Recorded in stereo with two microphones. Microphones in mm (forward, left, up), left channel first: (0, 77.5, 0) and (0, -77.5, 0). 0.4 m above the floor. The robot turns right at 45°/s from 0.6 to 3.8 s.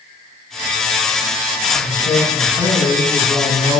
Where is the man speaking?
125° left, 2.5 m; by 3.8 s 145° right, 2.5 m.